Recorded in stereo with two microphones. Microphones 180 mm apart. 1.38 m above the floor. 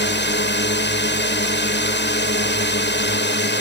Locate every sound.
0.0 s a drone: 80° left